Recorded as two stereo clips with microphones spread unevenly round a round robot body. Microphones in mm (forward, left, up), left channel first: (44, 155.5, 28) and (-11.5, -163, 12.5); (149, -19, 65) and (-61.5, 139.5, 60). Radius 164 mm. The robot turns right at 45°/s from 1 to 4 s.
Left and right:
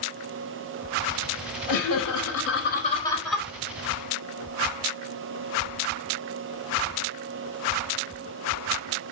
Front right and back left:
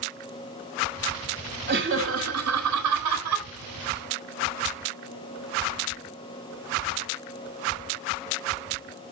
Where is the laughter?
95° left, 4 m; by 3.5 s 175° left, 4 m.